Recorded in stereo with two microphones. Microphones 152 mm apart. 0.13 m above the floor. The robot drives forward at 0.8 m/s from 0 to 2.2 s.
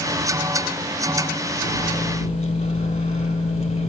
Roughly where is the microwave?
Left.